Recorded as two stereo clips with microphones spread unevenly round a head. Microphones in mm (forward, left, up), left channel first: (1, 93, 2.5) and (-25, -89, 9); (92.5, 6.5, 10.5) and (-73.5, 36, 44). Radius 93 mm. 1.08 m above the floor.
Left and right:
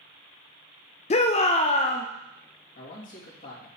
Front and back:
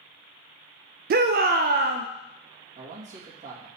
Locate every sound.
1.1 s a shout: 135° left, 0.5 m
2.8 s a man speaking: 125° left, 2 m